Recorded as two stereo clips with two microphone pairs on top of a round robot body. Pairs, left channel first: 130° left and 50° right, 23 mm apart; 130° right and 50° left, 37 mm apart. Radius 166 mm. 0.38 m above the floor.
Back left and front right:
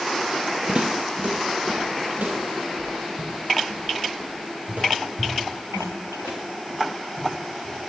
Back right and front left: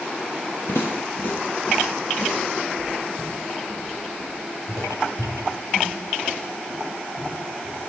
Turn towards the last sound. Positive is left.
turn(degrees=-40)